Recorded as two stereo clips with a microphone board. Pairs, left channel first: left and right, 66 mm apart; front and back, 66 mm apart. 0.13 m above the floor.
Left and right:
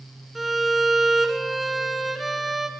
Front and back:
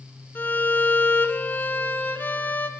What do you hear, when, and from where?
0.3 s a violin: straight ahead, 0.9 m